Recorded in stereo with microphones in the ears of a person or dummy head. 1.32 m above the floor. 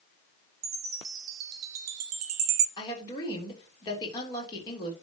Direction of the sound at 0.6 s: 50° right (ahead or behind).